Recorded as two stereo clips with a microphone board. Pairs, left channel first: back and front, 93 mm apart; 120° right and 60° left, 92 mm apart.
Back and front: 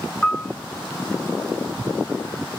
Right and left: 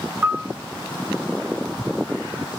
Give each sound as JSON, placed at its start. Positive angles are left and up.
{"t": 0.2, "sound": "a piano", "azimuth_deg": 110, "distance_m": 0.5}